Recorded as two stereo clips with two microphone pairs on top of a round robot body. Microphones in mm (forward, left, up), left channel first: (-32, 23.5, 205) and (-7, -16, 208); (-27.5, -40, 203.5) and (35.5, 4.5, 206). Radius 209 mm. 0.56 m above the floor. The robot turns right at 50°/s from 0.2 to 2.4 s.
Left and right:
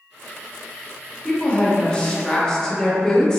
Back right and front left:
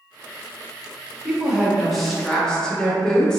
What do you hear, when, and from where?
1.2 s a woman speaking: 100° left, 0.9 m; by 3.4 s 155° left, 0.9 m